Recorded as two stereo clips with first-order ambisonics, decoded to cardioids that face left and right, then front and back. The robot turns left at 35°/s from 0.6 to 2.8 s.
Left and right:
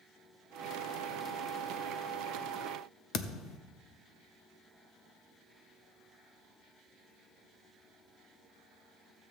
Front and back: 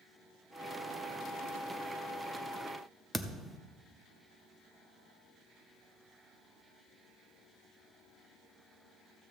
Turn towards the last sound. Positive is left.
turn(degrees=95)